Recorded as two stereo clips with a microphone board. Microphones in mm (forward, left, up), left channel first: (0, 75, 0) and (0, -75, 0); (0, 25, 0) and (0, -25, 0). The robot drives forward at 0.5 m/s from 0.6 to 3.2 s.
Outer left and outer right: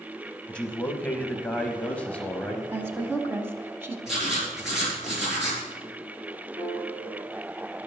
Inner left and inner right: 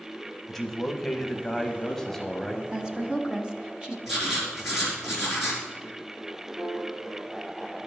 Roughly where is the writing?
Centre.